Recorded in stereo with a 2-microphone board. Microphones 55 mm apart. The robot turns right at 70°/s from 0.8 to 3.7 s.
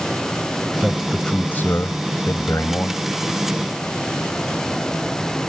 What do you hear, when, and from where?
0.8 s a man speaking: 15° right; by 3.0 s 140° left